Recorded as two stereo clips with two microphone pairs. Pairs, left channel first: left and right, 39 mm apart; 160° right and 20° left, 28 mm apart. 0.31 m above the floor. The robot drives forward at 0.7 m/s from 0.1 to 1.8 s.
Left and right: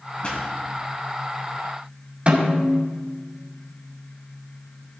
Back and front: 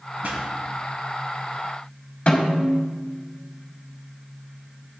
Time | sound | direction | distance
0.2 | a pop | 40° left | 2.5 m
2.3 | a snare drum | 135° right | 2 m